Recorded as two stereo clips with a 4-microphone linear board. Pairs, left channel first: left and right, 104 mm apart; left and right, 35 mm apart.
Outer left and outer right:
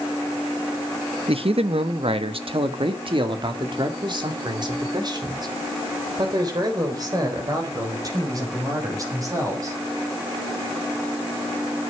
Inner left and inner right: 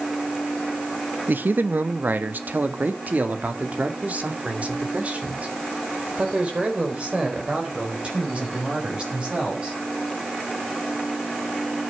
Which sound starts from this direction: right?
A man speaking, at 1.3 s.